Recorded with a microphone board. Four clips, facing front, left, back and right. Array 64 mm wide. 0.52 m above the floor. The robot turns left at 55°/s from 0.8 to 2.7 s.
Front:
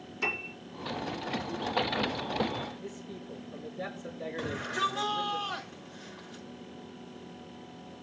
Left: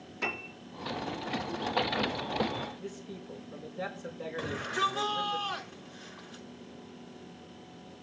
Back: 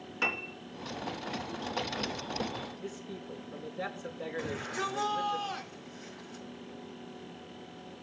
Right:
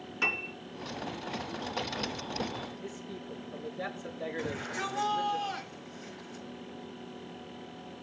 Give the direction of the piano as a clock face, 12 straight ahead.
5 o'clock.